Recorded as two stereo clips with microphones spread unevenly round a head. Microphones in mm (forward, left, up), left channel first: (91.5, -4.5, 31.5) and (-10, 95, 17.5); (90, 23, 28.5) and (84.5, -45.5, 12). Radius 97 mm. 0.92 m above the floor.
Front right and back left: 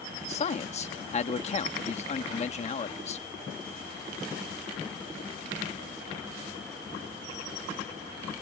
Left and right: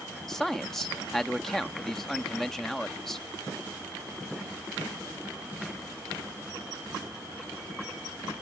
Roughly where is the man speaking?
Ahead.